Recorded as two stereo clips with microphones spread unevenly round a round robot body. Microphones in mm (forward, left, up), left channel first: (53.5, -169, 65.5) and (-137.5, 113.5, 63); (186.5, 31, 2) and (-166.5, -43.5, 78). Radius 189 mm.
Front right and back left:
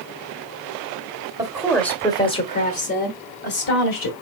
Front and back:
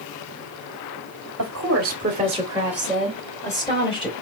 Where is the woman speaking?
175° right, 1.2 m; by 4.1 s 50° right, 1.9 m.